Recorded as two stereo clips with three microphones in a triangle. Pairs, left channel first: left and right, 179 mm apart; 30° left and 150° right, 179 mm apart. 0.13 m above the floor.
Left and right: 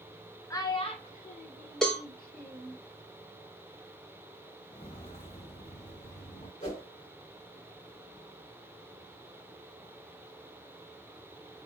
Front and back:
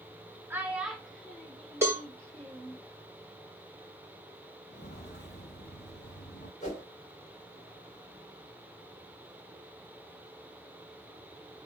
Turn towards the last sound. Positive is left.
turn(degrees=55)